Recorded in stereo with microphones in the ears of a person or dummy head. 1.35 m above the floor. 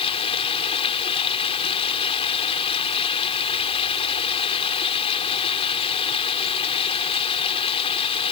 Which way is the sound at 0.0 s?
30° left (ahead or behind).